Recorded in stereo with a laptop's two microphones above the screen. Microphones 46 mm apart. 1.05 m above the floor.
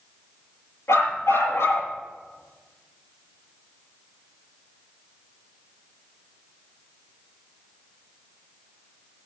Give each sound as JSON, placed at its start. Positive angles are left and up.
{"t": 0.9, "sound": "a dog barking", "side_deg": 75, "distance_m": 7.0}